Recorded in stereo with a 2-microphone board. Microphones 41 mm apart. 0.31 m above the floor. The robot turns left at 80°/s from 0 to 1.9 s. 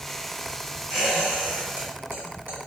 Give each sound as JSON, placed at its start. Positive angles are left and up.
{"t": 0.9, "sound": "a squeak", "side_deg": 0, "distance_m": 1.9}